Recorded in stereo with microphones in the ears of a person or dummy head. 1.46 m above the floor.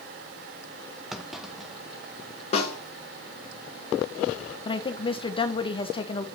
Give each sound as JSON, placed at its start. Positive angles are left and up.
{"t": 1.1, "sound": "a clunk", "side_deg": -5, "distance_m": 0.7}
{"t": 2.5, "sound": "a snare drum", "side_deg": 35, "distance_m": 1.4}
{"t": 4.7, "sound": "a woman speaking", "side_deg": 35, "distance_m": 1.2}